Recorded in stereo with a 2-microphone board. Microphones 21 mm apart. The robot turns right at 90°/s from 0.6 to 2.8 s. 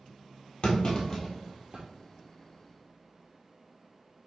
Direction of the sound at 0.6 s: 60° left (ahead or behind).